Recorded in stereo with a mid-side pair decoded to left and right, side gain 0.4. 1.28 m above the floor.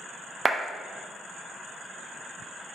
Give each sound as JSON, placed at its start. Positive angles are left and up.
{"t": 0.5, "sound": "a clap", "azimuth_deg": -35, "distance_m": 0.9}